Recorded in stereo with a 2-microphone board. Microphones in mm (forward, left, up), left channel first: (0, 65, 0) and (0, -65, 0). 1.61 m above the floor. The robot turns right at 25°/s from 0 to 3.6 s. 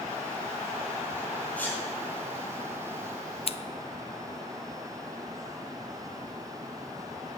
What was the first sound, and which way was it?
A sneeze, 10° left (ahead or behind).